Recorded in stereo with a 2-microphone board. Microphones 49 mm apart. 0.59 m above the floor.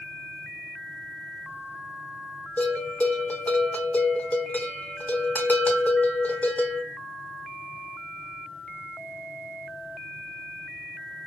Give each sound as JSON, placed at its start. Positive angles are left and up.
{"t": 2.6, "sound": "a bell", "side_deg": 35, "distance_m": 0.6}